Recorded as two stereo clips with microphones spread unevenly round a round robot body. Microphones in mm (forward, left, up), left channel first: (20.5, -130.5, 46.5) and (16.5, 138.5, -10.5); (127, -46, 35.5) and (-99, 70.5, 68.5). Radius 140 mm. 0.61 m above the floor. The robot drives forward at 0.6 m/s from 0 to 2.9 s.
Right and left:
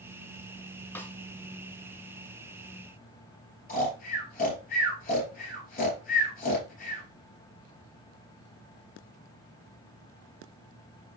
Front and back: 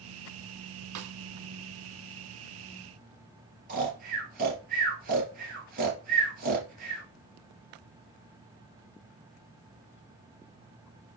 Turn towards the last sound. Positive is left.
turn(degrees=-150)